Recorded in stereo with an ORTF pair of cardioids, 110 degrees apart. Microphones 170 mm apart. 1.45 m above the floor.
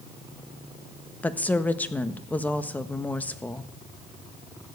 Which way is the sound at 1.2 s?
10° left.